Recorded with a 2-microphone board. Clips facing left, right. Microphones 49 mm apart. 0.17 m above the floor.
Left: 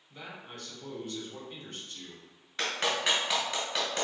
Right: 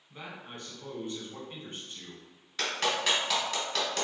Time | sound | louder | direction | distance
0.1 | a man speaking | right 1 dB | 25° right (ahead or behind) | 1.4 m
2.6 | a clap | even | 10° left (ahead or behind) | 1.8 m